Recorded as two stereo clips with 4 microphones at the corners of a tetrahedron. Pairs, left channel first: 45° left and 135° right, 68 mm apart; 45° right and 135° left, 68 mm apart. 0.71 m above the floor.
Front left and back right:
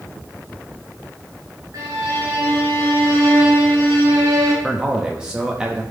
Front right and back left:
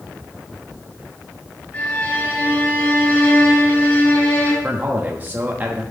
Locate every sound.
1.7 s a violin: 110° right, 4 m
4.6 s a man speaking: 160° left, 0.9 m